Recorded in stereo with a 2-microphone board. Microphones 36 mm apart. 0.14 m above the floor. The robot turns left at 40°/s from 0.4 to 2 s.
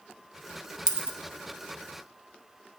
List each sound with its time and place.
0.9 s a dropped coin: 15° right (ahead or behind), 0.7 m